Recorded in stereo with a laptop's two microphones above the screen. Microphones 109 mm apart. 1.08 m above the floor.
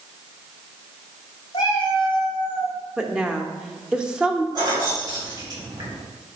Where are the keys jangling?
40° right (ahead or behind), 2 m.